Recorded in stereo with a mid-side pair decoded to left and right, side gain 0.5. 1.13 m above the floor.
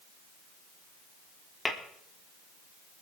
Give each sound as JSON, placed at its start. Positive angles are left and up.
{"t": 1.6, "sound": "tapping", "azimuth_deg": 10, "distance_m": 3.5}